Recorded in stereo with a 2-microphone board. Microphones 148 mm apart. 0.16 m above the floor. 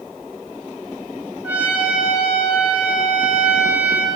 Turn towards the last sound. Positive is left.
turn(degrees=-10)  # may be behind; listen again after turning